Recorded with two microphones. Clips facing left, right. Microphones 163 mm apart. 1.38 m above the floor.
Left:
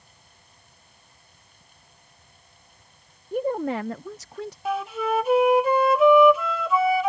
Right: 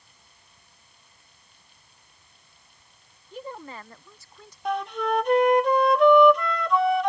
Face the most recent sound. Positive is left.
turn(degrees=5)  # may be behind; listen again after turning